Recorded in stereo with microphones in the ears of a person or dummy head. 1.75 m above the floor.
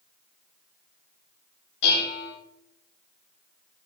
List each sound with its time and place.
1.8 s dishes clattering: 65° left (ahead or behind), 6.5 m